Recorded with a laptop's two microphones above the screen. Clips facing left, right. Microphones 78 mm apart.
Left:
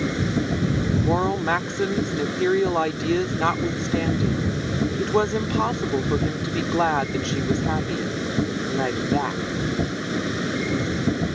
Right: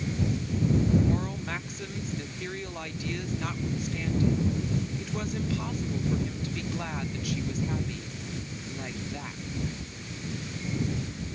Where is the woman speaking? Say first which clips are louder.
Left 8 dB; 75° left (ahead or behind).